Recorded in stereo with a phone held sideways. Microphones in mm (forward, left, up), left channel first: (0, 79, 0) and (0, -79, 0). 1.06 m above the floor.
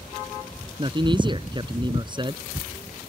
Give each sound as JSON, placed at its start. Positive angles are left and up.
{"t": 0.8, "sound": "a man speaking", "side_deg": -30}